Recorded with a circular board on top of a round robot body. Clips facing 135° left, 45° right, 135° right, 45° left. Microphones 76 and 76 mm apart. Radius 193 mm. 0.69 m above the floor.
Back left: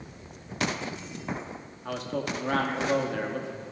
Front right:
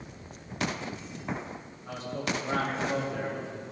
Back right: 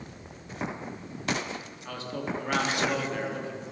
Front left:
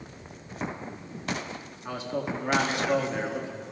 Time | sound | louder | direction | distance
1.9 | a man speaking | back left 3 dB, front left 3 dB | 115° left | 1.3 m